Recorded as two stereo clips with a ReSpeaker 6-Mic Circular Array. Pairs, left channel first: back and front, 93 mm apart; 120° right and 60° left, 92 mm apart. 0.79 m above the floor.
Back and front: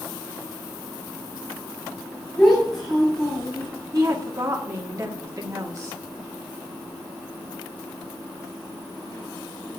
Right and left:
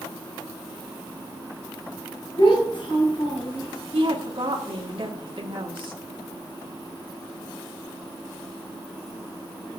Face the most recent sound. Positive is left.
turn(degrees=50)